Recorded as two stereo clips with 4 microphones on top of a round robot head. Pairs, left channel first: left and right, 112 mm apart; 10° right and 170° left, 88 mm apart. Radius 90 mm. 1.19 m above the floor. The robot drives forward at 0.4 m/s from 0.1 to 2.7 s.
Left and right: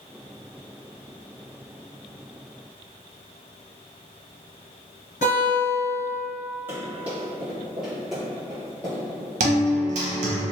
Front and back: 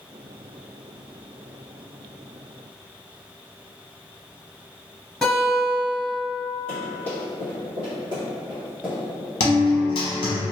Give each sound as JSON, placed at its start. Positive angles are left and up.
{"t": 5.2, "sound": "a guitar", "azimuth_deg": 75, "distance_m": 1.5}
{"t": 6.7, "sound": "running footsteps", "azimuth_deg": -160, "distance_m": 1.9}
{"t": 9.4, "sound": "a guitar", "azimuth_deg": -60, "distance_m": 0.6}